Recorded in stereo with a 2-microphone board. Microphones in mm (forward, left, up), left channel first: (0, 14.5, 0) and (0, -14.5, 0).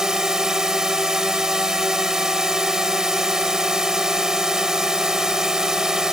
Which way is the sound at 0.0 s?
20° right (ahead or behind).